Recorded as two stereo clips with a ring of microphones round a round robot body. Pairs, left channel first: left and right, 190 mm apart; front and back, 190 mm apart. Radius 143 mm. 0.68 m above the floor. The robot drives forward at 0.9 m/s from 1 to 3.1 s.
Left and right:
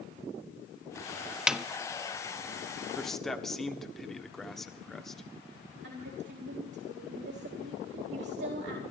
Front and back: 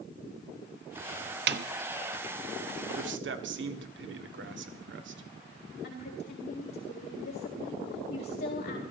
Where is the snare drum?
175° right, 0.9 m.